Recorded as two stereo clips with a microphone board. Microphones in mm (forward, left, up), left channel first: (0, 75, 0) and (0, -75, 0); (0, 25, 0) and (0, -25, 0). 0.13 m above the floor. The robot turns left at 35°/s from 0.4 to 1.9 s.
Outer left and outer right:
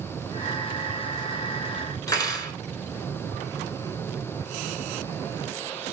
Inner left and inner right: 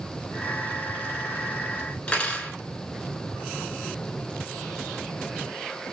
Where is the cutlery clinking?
25° left (ahead or behind), 1.0 m.